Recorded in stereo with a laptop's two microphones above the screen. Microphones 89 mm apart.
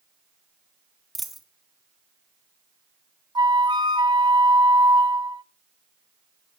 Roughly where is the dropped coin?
Centre.